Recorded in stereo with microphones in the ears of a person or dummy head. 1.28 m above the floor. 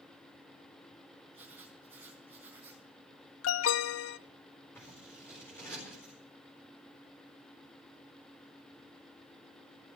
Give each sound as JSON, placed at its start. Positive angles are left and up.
{"t": 1.3, "sound": "writing", "side_deg": -10, "distance_m": 3.5}
{"t": 3.4, "sound": "an alarm", "side_deg": 85, "distance_m": 0.5}
{"t": 4.8, "sound": "scissors", "side_deg": 15, "distance_m": 4.0}